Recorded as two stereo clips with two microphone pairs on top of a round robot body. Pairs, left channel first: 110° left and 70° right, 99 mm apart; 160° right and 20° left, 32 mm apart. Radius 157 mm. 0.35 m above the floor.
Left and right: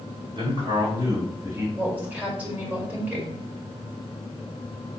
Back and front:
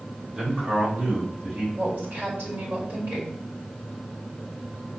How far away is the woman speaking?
About 2.5 m.